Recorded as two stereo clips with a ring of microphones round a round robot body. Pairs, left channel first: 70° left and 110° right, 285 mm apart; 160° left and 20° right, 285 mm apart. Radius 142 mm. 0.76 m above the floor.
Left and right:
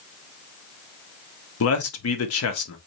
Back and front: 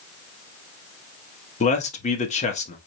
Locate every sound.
1.6 s a man speaking: 95° left, 1.1 m